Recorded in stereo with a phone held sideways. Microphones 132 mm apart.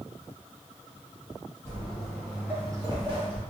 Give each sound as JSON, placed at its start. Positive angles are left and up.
{"t": 1.6, "sound": "footsteps", "side_deg": 20, "distance_m": 1.8}